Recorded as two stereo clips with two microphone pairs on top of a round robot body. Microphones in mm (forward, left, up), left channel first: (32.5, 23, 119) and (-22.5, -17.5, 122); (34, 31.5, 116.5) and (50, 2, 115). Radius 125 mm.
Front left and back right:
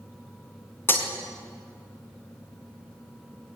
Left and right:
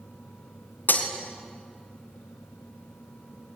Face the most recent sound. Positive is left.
turn(degrees=95)